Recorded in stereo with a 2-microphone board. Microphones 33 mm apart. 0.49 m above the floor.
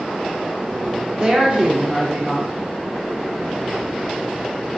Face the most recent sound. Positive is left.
turn(degrees=-30)  # may be behind; listen again after turning